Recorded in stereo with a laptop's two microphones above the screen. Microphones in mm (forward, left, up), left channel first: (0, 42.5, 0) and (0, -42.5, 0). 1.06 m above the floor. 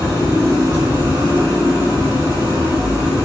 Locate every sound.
0.0 s an engine running: 50° right (ahead or behind), 1.2 m